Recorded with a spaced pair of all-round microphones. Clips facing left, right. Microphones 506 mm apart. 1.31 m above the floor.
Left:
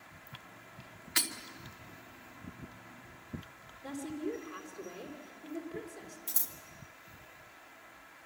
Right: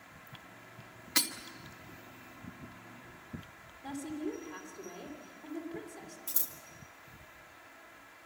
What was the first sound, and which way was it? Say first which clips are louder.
Breaking glass: right 3 dB; 65° right (ahead or behind).